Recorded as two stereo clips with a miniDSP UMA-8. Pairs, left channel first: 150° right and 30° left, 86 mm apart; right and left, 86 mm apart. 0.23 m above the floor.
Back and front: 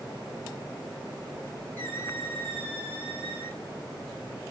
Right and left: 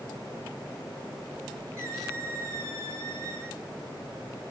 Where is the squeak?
150° left, 6.5 m.